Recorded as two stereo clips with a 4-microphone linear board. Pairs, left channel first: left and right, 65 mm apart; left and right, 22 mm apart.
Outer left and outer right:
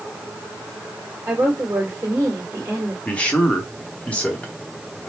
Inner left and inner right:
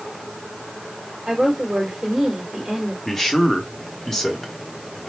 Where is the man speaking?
20° left (ahead or behind), 1.0 m.